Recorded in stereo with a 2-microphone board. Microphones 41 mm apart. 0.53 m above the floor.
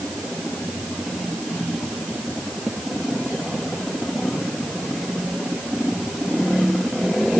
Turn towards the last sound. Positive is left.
No sound to turn to.